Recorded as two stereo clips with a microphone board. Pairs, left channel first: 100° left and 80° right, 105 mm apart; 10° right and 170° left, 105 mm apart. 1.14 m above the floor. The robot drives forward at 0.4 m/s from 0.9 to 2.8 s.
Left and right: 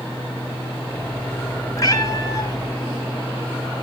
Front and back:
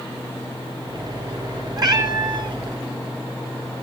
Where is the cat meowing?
140° left, 1.6 m; by 2.6 s 150° left, 1.8 m.